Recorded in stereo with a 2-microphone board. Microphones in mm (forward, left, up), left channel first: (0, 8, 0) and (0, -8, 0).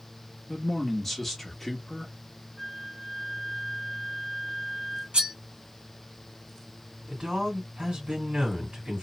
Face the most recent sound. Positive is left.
turn(degrees=-55)  # may be behind; listen again after turning